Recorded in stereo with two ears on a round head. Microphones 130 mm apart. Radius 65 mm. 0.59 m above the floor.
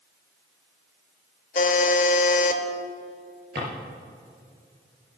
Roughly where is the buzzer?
Left.